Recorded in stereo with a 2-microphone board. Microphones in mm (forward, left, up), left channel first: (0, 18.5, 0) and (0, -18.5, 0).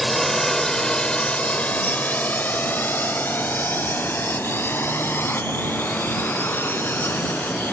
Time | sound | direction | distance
0.0 | a drone | 5° left (ahead or behind) | ?